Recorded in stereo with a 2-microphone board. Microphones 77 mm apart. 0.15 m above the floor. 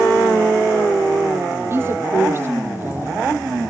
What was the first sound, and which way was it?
A woman speaking, 30° right (ahead or behind).